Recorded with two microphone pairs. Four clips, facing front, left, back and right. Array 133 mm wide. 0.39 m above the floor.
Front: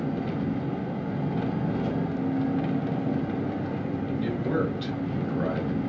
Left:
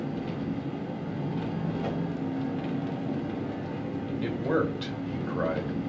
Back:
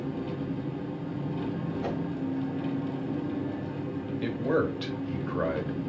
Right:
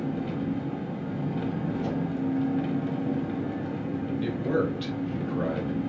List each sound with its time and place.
0.0 s an engine running: 15° right, 1.0 m
1.8 s a whoosh: 155° left, 2.5 m
4.2 s a man speaking: 160° left, 1.8 m